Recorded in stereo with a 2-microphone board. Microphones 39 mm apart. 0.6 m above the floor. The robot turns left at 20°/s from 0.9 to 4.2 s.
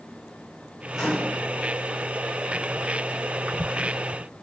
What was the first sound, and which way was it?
A microwave, 5° right (ahead or behind).